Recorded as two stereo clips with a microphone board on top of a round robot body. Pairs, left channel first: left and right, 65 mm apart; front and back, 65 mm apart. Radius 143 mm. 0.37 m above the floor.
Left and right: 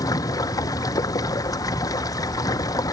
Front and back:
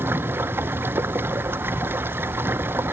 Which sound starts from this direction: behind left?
Running water, at 0.0 s.